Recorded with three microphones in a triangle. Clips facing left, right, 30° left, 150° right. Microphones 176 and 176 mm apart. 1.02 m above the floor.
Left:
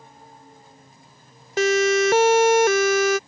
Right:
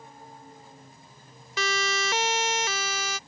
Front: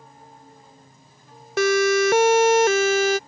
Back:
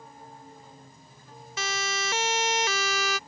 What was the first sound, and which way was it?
A siren, 50° left.